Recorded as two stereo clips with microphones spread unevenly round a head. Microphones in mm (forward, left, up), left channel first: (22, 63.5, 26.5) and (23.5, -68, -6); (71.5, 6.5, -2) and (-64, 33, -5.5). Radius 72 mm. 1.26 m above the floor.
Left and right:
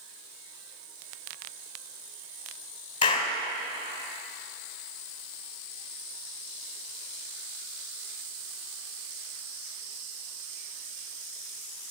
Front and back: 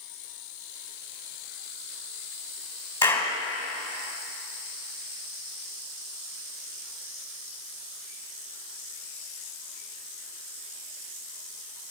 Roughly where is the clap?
Ahead left.